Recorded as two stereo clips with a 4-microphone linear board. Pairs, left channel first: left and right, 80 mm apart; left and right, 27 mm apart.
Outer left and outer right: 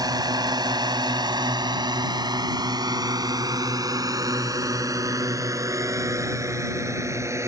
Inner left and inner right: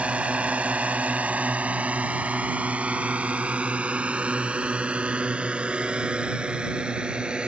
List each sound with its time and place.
0.0 s a drone: 55° right (ahead or behind); by 7.5 s 35° right (ahead or behind)